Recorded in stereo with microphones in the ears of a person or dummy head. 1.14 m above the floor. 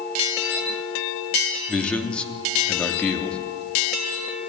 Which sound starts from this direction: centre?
A man speaking, at 1.7 s.